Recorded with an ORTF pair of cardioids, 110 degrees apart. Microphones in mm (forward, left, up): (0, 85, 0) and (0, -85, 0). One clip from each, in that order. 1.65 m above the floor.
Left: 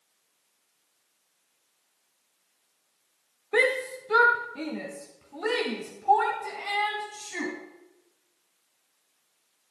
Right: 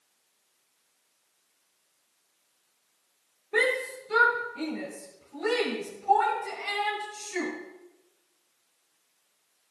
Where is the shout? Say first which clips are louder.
Left 2 dB; 30° left, 1.0 m.